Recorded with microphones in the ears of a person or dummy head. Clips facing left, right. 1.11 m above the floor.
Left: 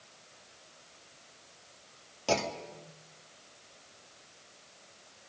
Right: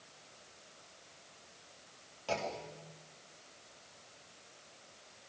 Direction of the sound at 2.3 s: 60° left (ahead or behind).